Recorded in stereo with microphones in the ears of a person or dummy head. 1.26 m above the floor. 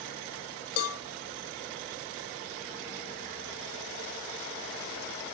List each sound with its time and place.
0.8 s a cowbell: 80° left, 1.6 m